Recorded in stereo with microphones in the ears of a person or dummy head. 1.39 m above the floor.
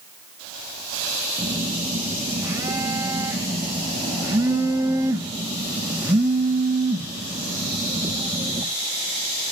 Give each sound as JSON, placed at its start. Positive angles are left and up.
{"t": 1.4, "sound": "a phone buzzing", "side_deg": -15, "distance_m": 1.4}